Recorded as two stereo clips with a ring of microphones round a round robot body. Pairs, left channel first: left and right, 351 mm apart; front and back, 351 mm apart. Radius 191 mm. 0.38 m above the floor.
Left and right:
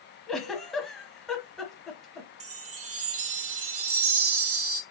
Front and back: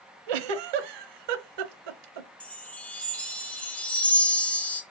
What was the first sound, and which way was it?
A giggle, straight behind.